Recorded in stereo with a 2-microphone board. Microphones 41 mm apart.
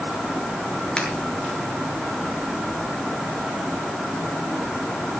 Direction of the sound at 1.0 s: 20° left (ahead or behind).